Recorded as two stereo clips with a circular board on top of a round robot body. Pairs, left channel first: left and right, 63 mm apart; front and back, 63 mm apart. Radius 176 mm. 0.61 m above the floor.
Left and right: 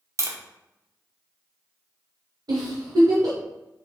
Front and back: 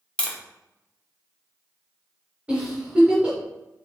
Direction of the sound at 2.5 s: 105° right.